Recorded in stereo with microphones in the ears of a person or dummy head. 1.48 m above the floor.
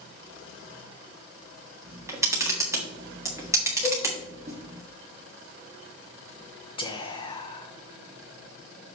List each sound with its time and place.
1.9 s a camera shutter: 15° right (ahead or behind), 1.5 m
3.8 s a cowbell: 15° left (ahead or behind), 2.5 m
6.8 s whispering: 30° left (ahead or behind), 0.9 m